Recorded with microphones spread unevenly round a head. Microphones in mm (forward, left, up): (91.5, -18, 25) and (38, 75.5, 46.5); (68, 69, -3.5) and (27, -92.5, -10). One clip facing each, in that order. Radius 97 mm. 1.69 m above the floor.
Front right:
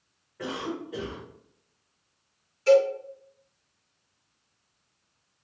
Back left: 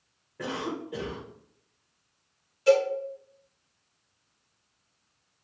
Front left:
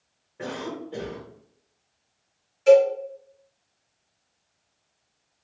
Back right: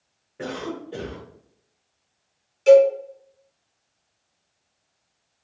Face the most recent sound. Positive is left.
turn(degrees=-170)